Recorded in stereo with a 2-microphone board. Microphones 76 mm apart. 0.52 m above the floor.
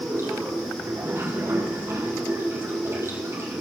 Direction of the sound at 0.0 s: 35° right (ahead or behind).